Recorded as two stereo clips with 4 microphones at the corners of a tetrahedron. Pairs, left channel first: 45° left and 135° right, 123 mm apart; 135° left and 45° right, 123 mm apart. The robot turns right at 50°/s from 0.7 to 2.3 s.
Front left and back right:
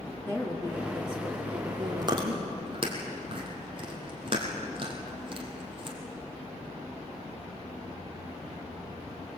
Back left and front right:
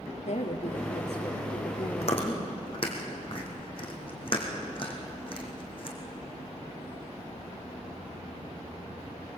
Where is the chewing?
165° left, 3.5 m; by 6.0 s straight behind, 3.5 m.